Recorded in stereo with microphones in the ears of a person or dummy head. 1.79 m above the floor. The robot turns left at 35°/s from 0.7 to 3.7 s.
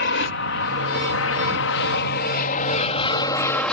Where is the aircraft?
60° left (ahead or behind); by 3.7 s 5° left (ahead or behind).